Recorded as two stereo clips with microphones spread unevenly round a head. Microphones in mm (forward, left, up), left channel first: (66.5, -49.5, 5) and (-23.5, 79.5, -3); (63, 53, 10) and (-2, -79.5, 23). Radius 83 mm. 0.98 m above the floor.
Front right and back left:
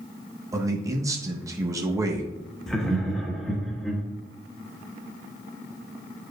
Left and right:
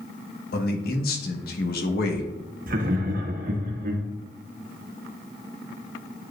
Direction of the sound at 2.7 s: 145° right.